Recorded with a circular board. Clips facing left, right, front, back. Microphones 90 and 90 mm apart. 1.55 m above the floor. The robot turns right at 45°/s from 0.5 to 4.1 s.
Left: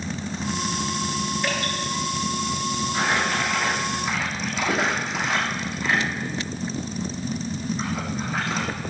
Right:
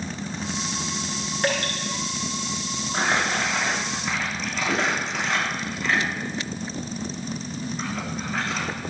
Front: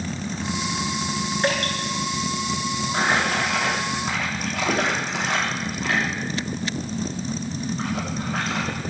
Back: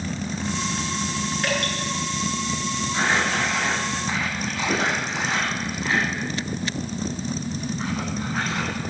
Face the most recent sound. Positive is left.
turn(degrees=10)